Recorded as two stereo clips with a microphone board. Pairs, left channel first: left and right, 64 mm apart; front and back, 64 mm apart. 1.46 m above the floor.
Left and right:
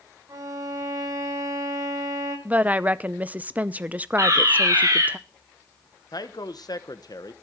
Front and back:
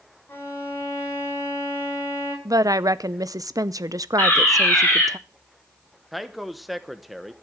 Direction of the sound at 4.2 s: 60° right.